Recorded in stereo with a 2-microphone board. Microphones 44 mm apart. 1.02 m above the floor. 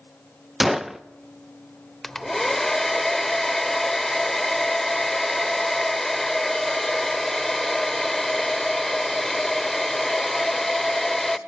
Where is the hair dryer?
5° left (ahead or behind), 0.7 m.